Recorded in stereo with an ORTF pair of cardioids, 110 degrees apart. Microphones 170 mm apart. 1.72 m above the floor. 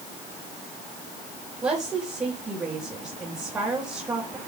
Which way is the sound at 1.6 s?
20° right.